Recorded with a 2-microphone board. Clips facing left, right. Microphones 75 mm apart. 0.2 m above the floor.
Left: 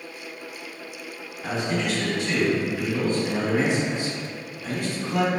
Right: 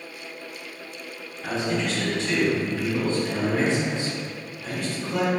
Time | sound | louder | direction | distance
1.4 | a man speaking | even | 15° left (ahead or behind) | 1.5 m